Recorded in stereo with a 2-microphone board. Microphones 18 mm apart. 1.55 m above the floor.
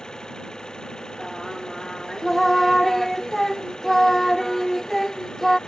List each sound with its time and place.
0.0 s an engine running: 40° left (ahead or behind)
1.2 s singing: 10° left (ahead or behind)